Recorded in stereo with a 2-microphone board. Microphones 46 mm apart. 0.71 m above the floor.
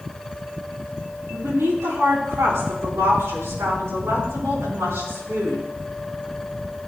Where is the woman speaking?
80° right, 6 m.